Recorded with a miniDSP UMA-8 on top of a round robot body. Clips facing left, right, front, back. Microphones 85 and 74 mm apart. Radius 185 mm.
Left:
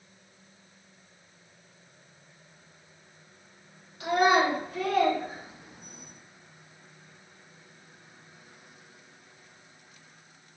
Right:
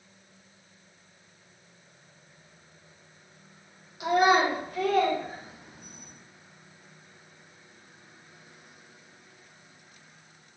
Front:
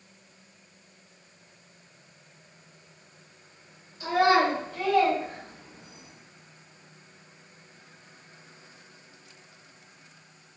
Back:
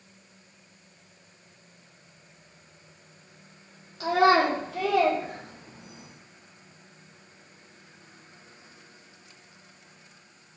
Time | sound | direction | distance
4.0 | a child speaking | 165° right | 1.2 m